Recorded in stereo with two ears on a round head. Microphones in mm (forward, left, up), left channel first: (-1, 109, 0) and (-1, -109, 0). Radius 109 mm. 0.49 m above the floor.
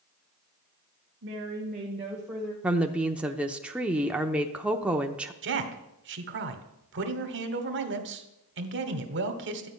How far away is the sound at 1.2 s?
About 1.9 m.